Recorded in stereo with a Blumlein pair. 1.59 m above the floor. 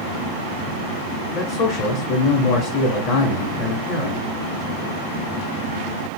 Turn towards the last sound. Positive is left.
turn(degrees=40)